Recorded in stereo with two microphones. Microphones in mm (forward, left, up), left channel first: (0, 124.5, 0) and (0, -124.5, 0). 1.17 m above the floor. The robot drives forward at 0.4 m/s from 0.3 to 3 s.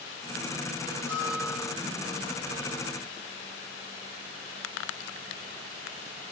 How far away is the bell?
About 8 m.